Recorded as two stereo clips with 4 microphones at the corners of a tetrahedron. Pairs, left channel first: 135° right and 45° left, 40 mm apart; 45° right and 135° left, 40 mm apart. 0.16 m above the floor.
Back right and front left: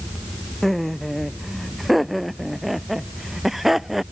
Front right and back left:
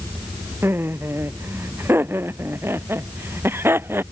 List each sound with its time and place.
0.6 s laughter: 140° left; by 4.0 s 130° left